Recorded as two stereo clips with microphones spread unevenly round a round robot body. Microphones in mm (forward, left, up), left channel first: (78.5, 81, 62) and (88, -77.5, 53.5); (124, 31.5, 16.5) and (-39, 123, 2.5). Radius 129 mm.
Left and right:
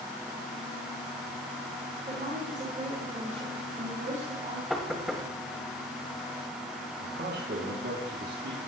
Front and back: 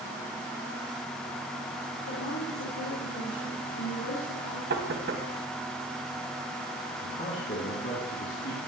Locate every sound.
2.1 s a woman speaking: 45° right, 5 m
4.7 s knocking: 175° right, 2.0 m
7.0 s a man speaking: 80° right, 3.5 m